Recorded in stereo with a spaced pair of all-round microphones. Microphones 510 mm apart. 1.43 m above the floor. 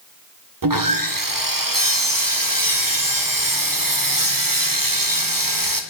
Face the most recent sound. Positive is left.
turn(degrees=-40)  # may be behind; listen again after turning